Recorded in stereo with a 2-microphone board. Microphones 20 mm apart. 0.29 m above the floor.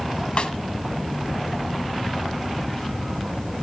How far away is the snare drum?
About 1.1 m.